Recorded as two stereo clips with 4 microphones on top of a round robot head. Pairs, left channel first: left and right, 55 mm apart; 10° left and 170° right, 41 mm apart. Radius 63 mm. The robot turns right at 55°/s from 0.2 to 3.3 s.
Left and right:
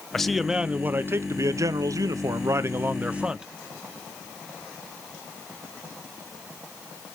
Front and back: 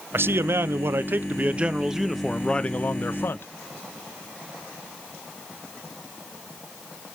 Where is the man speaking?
175° left, 0.6 m; by 3.5 s 15° right, 0.6 m.